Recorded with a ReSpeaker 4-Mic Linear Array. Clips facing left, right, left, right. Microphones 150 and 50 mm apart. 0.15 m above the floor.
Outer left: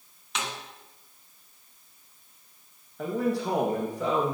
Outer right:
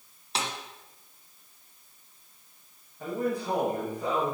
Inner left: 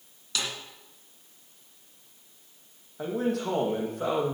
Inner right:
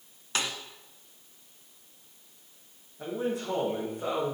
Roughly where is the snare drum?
Right.